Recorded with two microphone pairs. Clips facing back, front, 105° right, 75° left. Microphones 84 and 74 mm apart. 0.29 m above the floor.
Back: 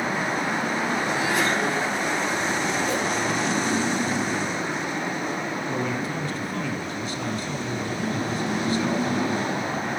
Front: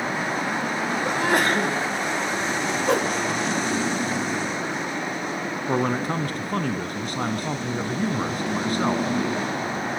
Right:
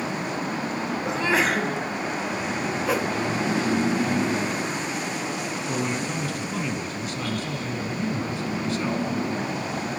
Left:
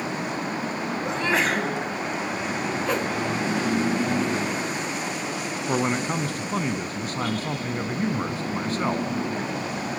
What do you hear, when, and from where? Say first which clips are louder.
1.1 s a sneeze: front 5 dB, right 1 dB; 20° right, 2.5 m
2.9 s a whoosh: front 4 dB, right 2 dB; 20° right, 1.2 m
5.7 s a man speaking: front 7 dB, left 5 dB; 30° left, 2.5 m